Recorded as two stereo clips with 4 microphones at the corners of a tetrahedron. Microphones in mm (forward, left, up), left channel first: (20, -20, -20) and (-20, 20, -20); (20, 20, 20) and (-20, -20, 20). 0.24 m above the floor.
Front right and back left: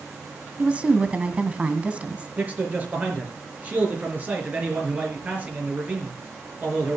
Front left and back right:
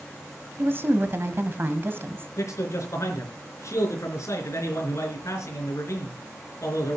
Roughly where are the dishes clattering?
I don't hear dishes clattering.